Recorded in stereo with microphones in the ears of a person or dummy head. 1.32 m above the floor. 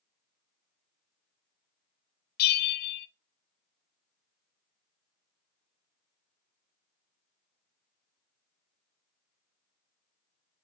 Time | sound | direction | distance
2.4 | a bell | 50° left (ahead or behind) | 0.5 m